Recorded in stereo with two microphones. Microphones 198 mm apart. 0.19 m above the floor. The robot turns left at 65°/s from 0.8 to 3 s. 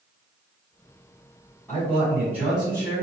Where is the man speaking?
10° left (ahead or behind), 1.4 m; by 3.0 s 25° right (ahead or behind), 1.4 m.